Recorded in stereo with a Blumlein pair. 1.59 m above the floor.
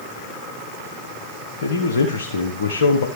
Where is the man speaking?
65° left, 1.1 m.